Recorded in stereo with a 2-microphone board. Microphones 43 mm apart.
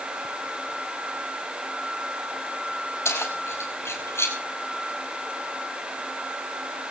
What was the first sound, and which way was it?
Keys jangling, 85° left.